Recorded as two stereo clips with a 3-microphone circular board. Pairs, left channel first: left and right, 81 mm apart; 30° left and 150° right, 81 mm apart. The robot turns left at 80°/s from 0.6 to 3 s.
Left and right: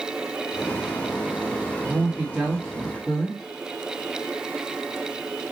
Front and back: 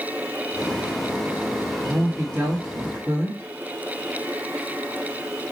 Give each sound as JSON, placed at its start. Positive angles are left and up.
{"t": 1.8, "sound": "a woman speaking", "azimuth_deg": -105, "distance_m": 1.0}